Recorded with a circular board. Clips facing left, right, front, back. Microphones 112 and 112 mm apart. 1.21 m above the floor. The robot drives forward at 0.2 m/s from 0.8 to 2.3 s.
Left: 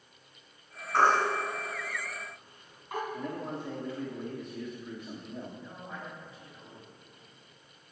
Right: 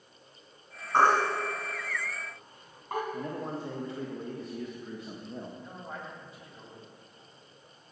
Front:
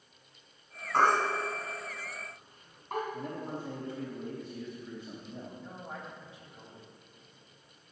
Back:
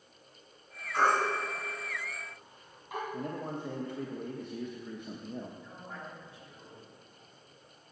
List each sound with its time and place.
0.9 s a baby crying: 45° right, 3 m; by 3.0 s 50° right, 2.5 m
3.1 s a man speaking: 150° right, 1.1 m
5.6 s a man speaking: 70° right, 3.5 m